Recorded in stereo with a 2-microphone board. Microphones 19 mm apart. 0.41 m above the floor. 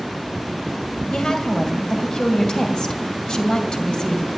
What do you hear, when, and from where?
1.1 s a woman speaking: 55° left (ahead or behind), 2 m